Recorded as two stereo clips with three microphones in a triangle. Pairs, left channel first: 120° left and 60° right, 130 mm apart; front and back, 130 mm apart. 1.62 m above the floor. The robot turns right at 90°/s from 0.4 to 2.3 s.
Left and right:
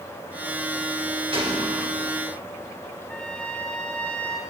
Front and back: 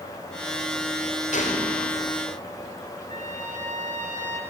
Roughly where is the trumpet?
Behind right.